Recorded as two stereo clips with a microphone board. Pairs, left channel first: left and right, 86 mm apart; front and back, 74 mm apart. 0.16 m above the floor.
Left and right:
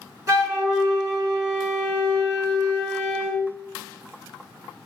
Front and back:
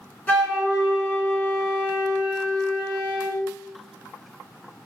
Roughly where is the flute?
Ahead right.